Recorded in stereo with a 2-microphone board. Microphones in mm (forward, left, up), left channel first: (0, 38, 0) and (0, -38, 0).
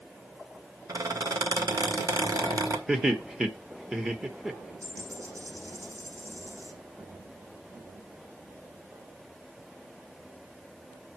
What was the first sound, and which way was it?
A squeak, 55° right (ahead or behind).